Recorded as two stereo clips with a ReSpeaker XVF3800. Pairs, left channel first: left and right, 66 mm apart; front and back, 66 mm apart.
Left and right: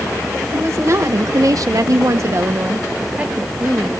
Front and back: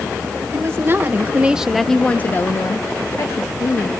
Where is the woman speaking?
135° right, 1.6 m; by 3.9 s 10° right, 1.9 m.